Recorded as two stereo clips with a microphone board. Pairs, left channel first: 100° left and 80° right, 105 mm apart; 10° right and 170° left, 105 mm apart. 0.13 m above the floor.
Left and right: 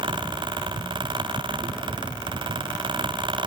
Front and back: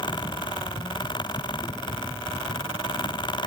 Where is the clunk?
I don't hear a clunk.